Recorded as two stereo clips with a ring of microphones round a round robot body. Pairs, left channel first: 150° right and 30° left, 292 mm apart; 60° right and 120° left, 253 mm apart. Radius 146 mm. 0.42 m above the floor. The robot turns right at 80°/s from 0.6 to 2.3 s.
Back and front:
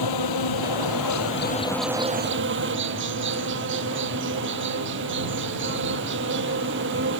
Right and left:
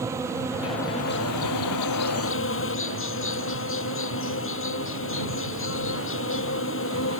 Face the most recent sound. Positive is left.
turn(degrees=-20)